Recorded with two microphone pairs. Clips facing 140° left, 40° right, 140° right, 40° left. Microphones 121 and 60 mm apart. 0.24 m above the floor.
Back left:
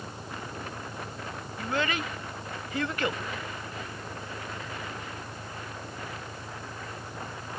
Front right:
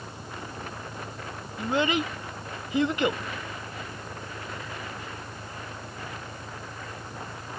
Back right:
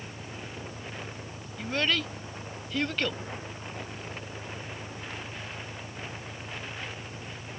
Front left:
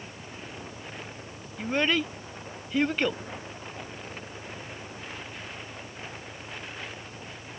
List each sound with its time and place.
0.0 s an engine running: 135° right
1.6 s a child speaking: 10° left